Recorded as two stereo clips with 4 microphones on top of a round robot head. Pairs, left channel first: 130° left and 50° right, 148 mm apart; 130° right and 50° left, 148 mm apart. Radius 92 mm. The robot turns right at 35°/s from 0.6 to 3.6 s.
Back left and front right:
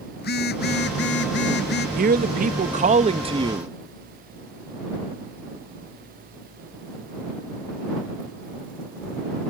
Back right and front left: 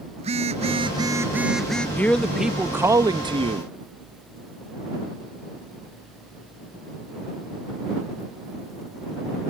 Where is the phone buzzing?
105° left; by 1.9 s 150° left.